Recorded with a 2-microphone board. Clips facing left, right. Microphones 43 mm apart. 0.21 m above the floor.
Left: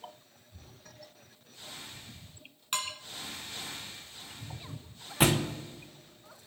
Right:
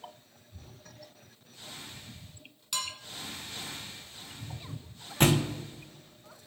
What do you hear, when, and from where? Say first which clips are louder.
2.7 s dishes clattering: left 1 dB; 40° left (ahead or behind), 1.1 m
5.2 s a thud: right 1 dB; 5° left (ahead or behind), 0.9 m